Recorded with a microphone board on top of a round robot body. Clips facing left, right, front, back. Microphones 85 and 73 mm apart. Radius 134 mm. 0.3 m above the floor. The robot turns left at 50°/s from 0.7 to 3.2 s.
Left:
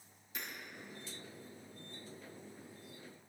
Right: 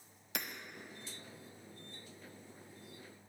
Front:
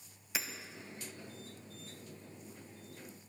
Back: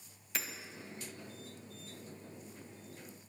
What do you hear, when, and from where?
0.3 s hammering: 80° right, 1.2 m